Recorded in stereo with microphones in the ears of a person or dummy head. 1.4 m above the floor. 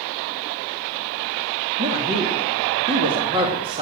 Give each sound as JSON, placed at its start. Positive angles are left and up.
{"t": 1.8, "sound": "a woman speaking", "side_deg": -30, "distance_m": 2.0}